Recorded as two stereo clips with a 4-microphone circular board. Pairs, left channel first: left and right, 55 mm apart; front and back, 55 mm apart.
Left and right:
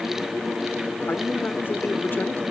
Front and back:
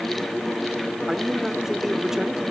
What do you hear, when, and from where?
1.1 s a man speaking: 105° left, 1.5 m